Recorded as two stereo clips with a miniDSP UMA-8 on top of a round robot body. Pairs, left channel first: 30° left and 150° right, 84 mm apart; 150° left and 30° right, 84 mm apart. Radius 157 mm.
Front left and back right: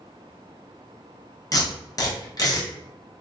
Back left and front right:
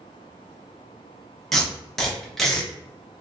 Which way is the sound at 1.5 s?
65° left.